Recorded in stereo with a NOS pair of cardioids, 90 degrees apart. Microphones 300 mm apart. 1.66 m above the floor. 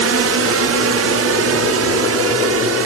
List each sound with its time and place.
0.0 s a drone: 55° right; by 2.9 s 50° right